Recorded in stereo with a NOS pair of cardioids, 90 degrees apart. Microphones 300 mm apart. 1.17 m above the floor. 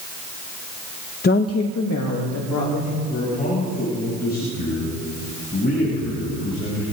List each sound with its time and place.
1.2 s a woman speaking: 30° left, 0.7 m; by 3.0 s 75° left, 3 m
3.1 s a man speaking: 30° left, 8.5 m